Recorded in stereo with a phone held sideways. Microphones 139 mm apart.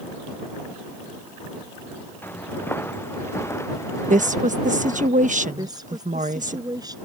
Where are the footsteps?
15° left (ahead or behind); by 5.1 s 25° left (ahead or behind).